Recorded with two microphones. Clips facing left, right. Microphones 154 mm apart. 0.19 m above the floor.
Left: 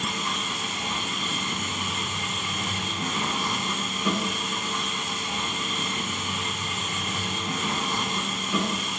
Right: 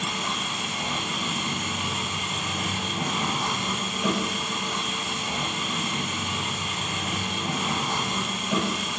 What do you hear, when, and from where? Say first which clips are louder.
0.0 s an engine running: even; 75° right (ahead or behind), 8 m